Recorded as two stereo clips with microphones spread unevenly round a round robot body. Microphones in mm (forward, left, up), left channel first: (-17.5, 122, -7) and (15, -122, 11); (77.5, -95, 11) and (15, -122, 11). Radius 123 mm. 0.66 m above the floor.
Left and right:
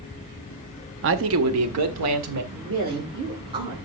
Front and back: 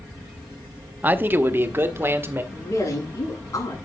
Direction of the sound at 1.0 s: 105° right.